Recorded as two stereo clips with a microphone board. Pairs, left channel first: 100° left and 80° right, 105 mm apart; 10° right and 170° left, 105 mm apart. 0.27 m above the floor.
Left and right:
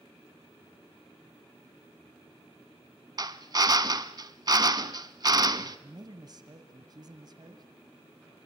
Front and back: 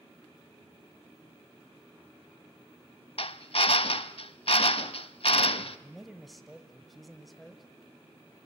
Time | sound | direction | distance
3.2 | a drill | 30° right | 0.7 m
5.8 | a man speaking | 100° right | 1.3 m